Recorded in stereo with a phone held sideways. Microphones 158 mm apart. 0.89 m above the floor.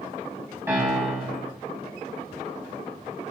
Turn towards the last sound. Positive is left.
turn(degrees=-15)  # may be behind; listen again after turning